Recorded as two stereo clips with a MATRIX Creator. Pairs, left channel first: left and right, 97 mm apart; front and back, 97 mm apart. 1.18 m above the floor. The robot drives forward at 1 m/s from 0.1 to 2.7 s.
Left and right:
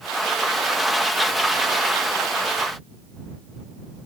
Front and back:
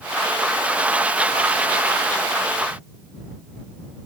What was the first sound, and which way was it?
Only background noise.